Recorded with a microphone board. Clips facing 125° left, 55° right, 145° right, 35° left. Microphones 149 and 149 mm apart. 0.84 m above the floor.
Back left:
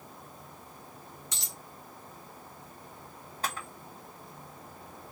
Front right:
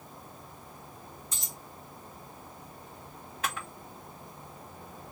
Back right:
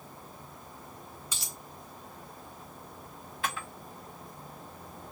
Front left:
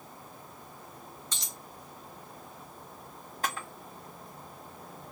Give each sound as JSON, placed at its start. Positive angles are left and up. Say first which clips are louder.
{"t": 1.3, "sound": "a dropped coin", "louder": "front right 1 dB, even", "azimuth_deg": 135, "distance_m": 0.8}
{"t": 3.4, "sound": "a camera shutter", "louder": "front right 1 dB, front left 1 dB", "azimuth_deg": 75, "distance_m": 1.5}